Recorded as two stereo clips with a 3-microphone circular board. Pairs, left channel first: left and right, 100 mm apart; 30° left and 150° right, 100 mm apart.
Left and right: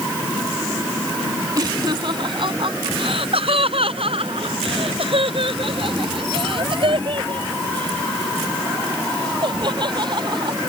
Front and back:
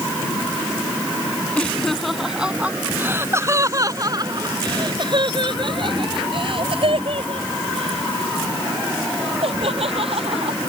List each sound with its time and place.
1.6 s laughter: 45° right; by 10.6 s 130° right